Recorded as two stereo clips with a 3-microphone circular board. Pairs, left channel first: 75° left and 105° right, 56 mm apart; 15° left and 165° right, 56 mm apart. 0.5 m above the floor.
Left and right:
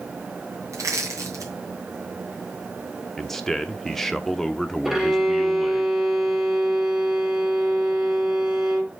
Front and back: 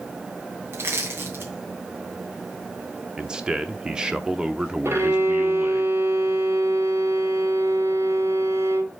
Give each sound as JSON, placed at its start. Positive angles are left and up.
{"t": 0.7, "sound": "crushing", "azimuth_deg": -120, "distance_m": 2.5}
{"t": 3.2, "sound": "a man speaking", "azimuth_deg": 145, "distance_m": 0.7}
{"t": 4.8, "sound": "a violin", "azimuth_deg": 175, "distance_m": 2.0}